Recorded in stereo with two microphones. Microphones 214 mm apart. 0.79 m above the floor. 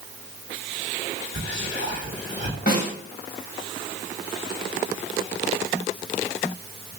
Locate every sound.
1.3 s whispering: 55° right (ahead or behind), 1.6 m
2.7 s a snare drum: 45° left (ahead or behind), 1.0 m